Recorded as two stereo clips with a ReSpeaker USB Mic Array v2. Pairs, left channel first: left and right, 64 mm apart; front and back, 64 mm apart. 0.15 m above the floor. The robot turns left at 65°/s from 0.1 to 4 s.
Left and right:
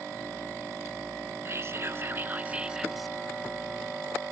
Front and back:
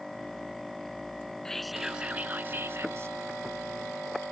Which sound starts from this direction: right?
Whispering, at 1.4 s.